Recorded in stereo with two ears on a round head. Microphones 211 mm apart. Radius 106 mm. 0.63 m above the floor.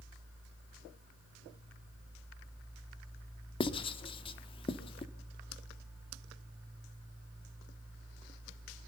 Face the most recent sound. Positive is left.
turn(degrees=25)  # may be behind; listen again after turning